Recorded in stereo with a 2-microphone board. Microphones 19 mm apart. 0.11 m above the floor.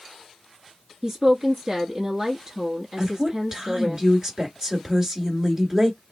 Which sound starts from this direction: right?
A woman speaking, at 3.0 s.